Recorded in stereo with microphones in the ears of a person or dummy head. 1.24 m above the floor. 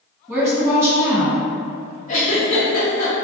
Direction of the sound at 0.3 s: 15° right (ahead or behind).